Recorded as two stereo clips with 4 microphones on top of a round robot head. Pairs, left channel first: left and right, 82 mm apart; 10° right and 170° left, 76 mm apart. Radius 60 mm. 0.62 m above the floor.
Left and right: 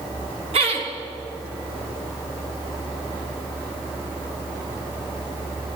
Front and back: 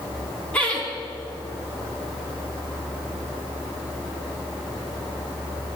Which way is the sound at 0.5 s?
90° right.